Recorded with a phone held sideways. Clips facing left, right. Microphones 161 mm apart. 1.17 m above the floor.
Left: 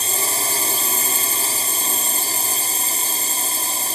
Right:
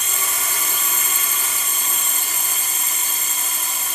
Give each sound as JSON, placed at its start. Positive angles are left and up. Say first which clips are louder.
{"t": 0.0, "sound": "a drone", "louder": "left 4 dB", "side_deg": 40}